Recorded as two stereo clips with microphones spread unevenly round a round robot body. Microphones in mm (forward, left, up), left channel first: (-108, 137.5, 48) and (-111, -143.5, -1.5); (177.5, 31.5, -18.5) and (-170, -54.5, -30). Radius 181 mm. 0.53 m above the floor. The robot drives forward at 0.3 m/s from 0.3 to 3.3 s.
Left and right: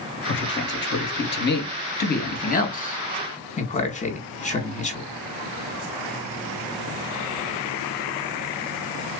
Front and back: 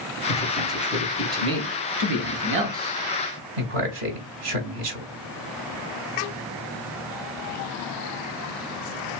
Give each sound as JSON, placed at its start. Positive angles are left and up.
{"t": 0.3, "sound": "a man speaking", "azimuth_deg": 90, "distance_m": 0.8}